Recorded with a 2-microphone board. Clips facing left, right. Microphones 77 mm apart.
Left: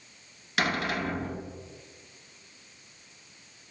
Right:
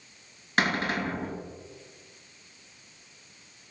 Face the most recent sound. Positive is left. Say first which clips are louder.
# right 2 dB
turn(degrees=-30)  # may be behind; listen again after turning